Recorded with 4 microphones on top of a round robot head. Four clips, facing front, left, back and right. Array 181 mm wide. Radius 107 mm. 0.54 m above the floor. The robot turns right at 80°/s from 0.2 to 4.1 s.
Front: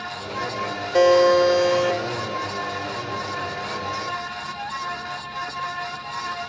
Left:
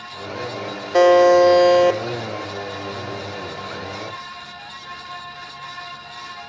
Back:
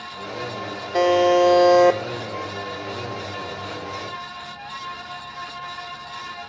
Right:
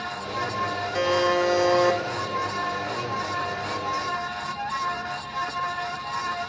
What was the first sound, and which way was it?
A buzzer, 85° left.